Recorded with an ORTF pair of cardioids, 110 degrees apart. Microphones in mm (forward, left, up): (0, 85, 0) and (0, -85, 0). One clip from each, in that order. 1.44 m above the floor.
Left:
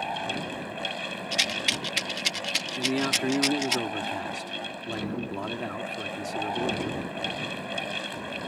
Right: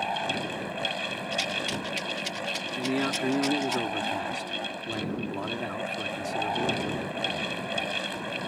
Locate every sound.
0.0 s a fan: 10° right
1.3 s a rattle: 50° left
2.8 s a man speaking: 5° left